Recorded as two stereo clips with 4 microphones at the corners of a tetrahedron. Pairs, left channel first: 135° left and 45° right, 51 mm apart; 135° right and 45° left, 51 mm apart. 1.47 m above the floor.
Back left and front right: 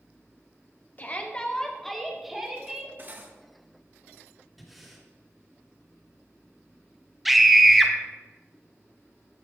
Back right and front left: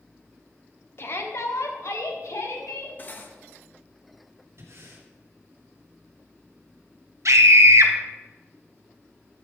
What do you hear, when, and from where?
1.0 s a shout: 175° right, 1.6 m; by 2.9 s 125° right, 3 m
3.0 s cutlery clinking: 90° right, 1.1 m
4.6 s breathing: 40° left, 2.5 m
7.2 s a scream: 40° left, 1.4 m